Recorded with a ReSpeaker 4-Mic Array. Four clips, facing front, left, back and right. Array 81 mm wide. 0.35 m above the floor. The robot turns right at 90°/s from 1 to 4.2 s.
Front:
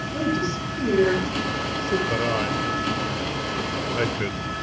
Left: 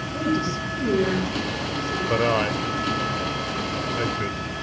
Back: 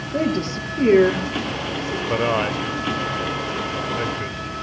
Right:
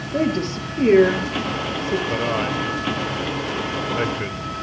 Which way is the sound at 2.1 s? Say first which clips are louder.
Left 1 dB, back 3 dB; 135° left.